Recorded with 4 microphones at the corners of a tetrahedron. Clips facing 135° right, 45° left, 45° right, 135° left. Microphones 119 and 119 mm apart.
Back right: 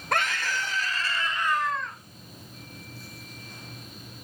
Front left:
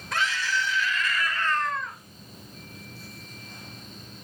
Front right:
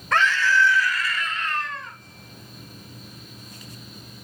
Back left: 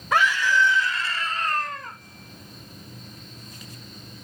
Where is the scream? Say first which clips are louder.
Even, even; 145° right, 1.9 m; by 2.0 s 125° left, 1.3 m.